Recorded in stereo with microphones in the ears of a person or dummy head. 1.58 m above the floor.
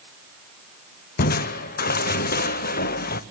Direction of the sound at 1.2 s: 50° left (ahead or behind).